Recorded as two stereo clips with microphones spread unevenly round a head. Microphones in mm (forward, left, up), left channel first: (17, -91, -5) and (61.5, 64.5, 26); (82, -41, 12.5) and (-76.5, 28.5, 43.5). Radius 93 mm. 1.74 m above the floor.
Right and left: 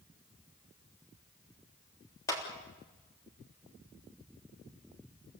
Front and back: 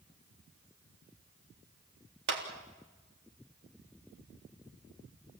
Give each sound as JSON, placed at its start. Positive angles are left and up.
{"t": 2.3, "sound": "a clap", "azimuth_deg": 180, "distance_m": 3.5}